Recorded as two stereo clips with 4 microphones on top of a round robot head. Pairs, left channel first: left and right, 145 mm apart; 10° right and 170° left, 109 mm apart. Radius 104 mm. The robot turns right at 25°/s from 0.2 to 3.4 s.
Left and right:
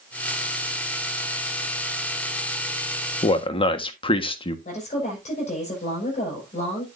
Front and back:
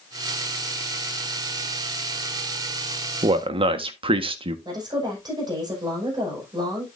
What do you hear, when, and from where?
3.2 s a man speaking: 135° left, 1.4 m; by 4.5 s 140° left, 1.4 m
4.7 s a woman speaking: 125° left, 5.5 m